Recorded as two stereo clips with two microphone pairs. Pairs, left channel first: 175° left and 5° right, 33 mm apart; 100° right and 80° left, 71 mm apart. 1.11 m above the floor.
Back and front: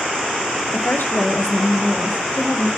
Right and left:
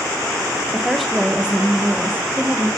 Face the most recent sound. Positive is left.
turn(degrees=135)